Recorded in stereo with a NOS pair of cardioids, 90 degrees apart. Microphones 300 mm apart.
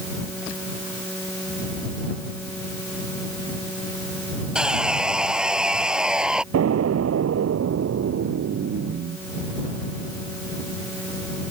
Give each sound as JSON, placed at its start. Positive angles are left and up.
{"t": 4.5, "sound": "sawing", "azimuth_deg": 0}
{"t": 6.5, "sound": "an explosion", "azimuth_deg": -55}